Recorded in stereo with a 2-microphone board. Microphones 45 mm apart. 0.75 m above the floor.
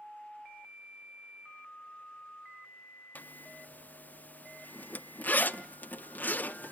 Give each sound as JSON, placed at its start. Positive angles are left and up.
{"t": 3.1, "sound": "a zipper", "side_deg": 40, "distance_m": 0.5}